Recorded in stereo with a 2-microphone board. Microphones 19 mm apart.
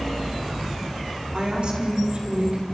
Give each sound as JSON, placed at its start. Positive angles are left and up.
{"t": 1.3, "sound": "a woman speaking", "side_deg": -50, "distance_m": 4.0}